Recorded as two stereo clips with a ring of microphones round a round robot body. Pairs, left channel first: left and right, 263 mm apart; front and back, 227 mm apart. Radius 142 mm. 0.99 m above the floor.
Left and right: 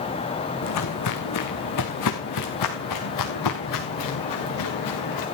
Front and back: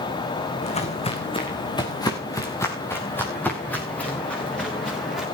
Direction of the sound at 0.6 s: 60° left.